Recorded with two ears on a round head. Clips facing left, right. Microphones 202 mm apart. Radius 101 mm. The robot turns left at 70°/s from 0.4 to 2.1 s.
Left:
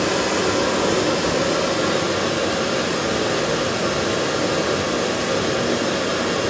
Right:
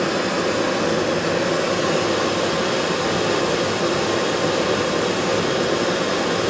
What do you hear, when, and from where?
0.0 s running water: 135° left, 1.3 m; by 6.5 s 15° left, 1.3 m